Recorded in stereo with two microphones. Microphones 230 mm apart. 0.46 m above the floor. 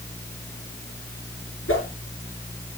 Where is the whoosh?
60° left (ahead or behind), 6.5 m.